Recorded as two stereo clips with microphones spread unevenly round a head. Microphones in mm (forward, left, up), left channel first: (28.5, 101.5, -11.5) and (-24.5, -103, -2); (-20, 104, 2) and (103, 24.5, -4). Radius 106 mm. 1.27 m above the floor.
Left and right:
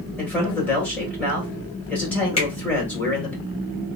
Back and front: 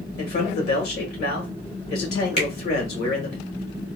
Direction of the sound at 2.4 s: 140° left.